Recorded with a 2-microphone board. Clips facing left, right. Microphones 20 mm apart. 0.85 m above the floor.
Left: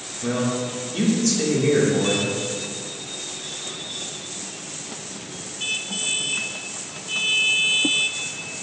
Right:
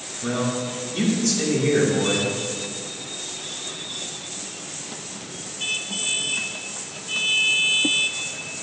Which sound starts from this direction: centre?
A man speaking, at 0.2 s.